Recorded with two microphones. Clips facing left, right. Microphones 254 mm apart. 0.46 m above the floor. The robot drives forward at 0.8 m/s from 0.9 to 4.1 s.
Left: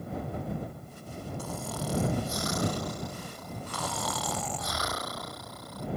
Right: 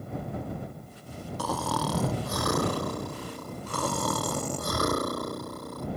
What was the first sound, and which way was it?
Snoring, 80° right.